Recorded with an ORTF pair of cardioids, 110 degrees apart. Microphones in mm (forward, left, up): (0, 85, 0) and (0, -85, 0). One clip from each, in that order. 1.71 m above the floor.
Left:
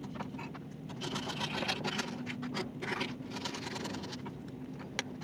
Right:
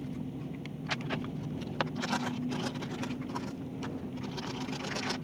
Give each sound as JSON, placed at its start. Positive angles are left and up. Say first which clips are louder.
{"t": 0.0, "sound": "an engine running", "louder": "right 1 dB", "azimuth_deg": -35}